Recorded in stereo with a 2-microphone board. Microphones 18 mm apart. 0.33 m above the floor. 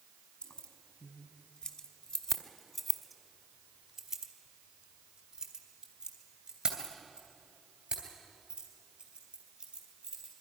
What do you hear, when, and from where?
0.4 s keys jangling: 65° left (ahead or behind), 2 m; by 10.3 s 65° right (ahead or behind), 6 m